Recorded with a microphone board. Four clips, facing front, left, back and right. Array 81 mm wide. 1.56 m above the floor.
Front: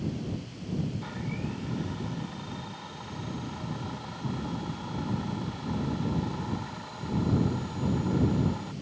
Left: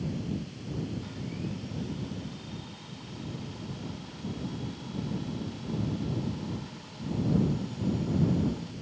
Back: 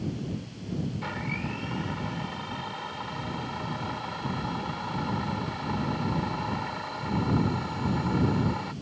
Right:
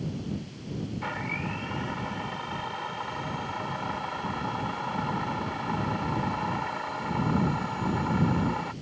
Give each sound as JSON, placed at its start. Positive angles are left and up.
{"t": 1.0, "sound": "a blender", "azimuth_deg": -110}